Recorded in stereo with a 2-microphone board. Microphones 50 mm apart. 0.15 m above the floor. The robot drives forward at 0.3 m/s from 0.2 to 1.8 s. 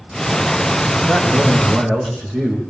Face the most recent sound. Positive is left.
turn(degrees=5)  # may be behind; listen again after turning